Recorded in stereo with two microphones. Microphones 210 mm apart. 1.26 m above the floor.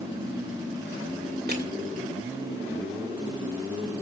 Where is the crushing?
45° right (ahead or behind), 2 m.